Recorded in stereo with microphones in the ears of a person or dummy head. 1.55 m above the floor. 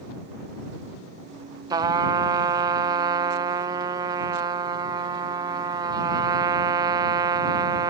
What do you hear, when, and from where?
1.7 s a trumpet: 20° right (ahead or behind)